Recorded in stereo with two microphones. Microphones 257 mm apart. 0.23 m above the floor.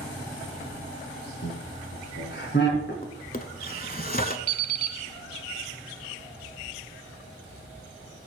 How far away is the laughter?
About 1.9 m.